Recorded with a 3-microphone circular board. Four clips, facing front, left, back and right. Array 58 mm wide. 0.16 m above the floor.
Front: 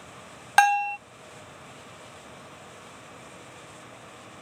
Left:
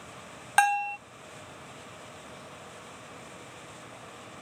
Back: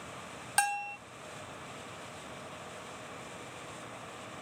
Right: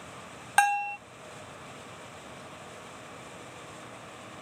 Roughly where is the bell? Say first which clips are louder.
Left 1 dB, front 12 dB; ahead.